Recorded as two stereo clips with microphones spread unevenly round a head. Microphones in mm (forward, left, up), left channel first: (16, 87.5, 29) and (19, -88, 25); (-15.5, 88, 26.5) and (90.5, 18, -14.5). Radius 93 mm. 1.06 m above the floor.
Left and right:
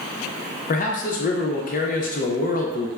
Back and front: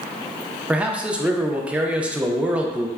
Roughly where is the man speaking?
Ahead left.